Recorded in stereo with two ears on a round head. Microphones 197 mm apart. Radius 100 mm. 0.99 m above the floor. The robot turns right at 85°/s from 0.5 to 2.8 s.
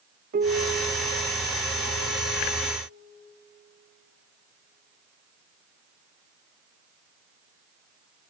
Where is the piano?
40° right, 0.5 m; by 2.8 s 155° left, 0.5 m.